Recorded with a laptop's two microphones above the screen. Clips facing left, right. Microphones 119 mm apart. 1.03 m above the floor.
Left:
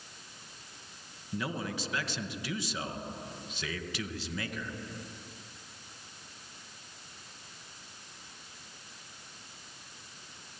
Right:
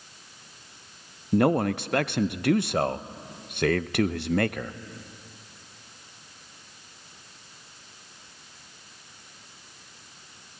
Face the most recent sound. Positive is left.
turn(degrees=-60)  # may be behind; listen again after turning